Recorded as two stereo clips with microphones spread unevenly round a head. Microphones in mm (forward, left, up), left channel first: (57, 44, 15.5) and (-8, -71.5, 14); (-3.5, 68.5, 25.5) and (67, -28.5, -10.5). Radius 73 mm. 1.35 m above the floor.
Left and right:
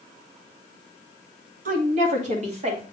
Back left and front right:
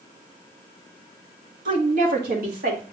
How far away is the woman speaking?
About 1.9 m.